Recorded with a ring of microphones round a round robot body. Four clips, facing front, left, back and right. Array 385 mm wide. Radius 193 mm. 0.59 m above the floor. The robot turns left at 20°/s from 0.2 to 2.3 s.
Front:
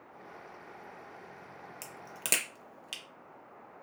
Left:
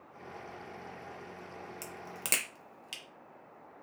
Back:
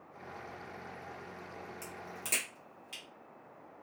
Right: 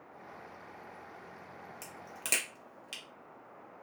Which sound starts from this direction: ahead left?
A crack, at 1.8 s.